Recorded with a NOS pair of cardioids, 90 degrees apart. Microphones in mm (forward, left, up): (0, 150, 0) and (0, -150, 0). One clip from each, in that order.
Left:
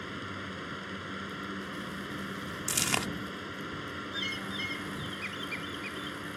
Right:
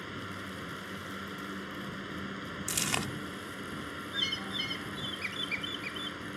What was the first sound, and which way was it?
A fan, 10° left.